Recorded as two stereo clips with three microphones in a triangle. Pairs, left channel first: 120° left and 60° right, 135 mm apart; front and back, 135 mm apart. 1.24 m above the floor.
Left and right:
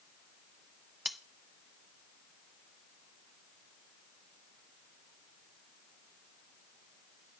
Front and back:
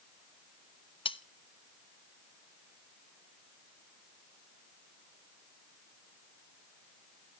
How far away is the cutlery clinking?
About 0.6 m.